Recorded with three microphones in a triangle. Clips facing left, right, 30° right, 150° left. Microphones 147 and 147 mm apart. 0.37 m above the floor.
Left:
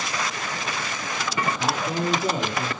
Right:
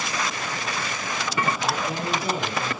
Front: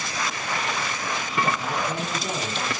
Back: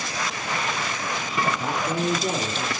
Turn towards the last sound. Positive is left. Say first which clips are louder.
# left 2 dB, back 3 dB
turn(degrees=125)